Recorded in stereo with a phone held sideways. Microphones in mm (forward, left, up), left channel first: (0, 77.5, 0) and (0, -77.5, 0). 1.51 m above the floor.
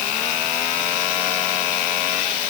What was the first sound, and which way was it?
Only background noise.